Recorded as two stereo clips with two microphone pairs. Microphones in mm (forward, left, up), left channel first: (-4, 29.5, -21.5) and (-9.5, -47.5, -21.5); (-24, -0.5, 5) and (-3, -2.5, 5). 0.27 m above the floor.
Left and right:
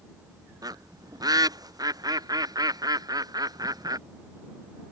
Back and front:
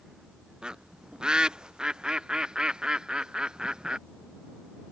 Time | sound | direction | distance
0.6 | a bird | 60° right | ?